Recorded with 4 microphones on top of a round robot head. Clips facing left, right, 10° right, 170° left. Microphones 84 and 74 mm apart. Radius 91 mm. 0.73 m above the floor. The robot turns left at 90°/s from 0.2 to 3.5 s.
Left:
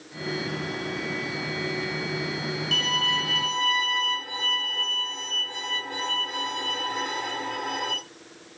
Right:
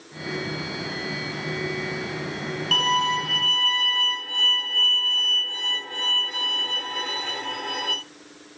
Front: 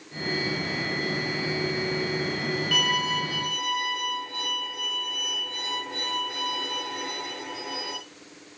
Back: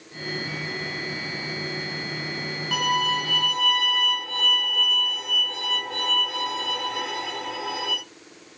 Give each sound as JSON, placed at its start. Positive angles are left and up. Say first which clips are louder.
{"t": 2.7, "sound": "a violin", "louder": "right 8 dB, back 6 dB", "azimuth_deg": -125, "distance_m": 4.0}